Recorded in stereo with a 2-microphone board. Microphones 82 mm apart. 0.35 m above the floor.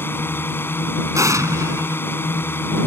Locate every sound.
0.0 s a drone: 25° left (ahead or behind)
1.1 s an explosion: 40° right (ahead or behind)